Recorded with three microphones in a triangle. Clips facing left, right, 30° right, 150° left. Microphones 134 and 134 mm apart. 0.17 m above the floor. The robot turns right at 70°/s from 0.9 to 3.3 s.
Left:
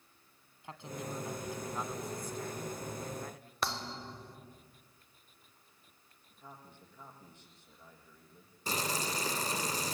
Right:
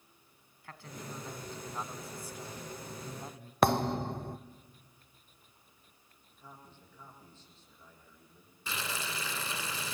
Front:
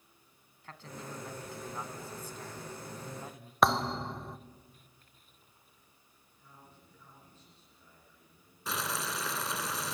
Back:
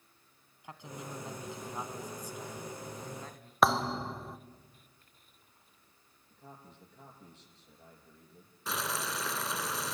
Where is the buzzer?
I don't hear a buzzer.